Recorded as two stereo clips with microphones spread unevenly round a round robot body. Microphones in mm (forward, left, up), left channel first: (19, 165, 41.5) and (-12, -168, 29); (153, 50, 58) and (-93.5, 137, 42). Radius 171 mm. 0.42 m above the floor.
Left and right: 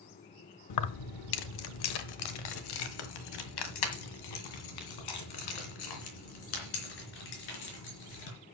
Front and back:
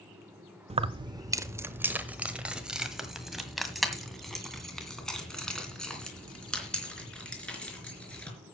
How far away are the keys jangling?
About 0.6 m.